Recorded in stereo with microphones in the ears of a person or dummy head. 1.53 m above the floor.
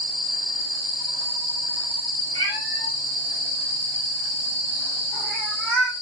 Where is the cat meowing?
20° left (ahead or behind), 6.5 m; by 5.9 s centre (ahead or behind), 5.5 m.